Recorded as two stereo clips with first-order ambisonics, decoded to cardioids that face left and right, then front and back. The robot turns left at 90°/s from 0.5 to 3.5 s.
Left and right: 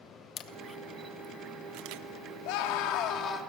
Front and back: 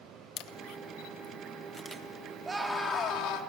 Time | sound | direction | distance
0.4 | a camera shutter | 35° left | 1.0 m
2.5 | a scream | 105° left | 2.5 m